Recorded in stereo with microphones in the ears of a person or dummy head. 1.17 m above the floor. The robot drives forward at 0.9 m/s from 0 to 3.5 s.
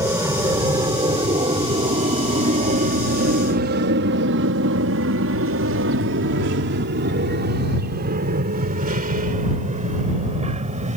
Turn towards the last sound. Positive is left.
turn(degrees=-30)  # may be behind; listen again after turning